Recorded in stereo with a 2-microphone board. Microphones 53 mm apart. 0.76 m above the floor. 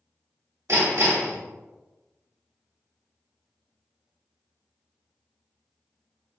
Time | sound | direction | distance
0.7 | hammering | 65° right (ahead or behind) | 1.3 m